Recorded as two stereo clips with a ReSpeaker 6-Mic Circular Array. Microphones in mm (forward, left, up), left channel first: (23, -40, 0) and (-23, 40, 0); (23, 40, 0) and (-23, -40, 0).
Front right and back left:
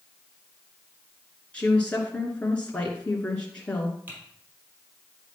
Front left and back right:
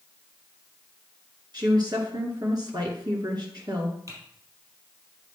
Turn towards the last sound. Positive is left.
turn(degrees=-170)